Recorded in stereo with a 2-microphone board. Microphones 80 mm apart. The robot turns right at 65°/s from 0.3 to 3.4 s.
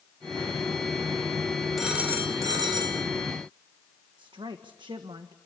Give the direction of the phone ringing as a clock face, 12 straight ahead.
6 o'clock.